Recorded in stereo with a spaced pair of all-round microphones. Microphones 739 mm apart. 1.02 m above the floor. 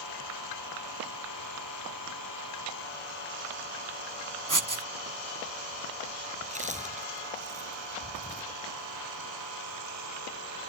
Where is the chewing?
10° right (ahead or behind).